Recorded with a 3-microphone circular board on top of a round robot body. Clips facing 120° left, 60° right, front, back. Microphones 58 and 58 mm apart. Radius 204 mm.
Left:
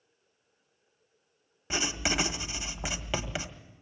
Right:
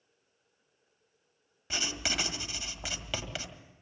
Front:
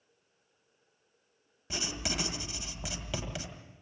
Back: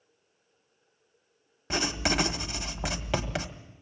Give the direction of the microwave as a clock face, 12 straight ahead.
I don't hear a microwave.